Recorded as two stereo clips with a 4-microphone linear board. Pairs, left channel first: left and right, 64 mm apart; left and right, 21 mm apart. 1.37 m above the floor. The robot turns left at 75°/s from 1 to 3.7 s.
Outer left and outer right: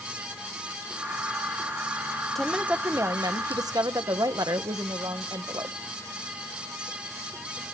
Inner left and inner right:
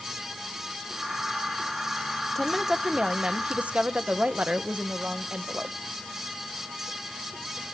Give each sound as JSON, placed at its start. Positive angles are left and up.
{"t": 2.4, "sound": "a woman speaking", "azimuth_deg": 5, "distance_m": 1.2}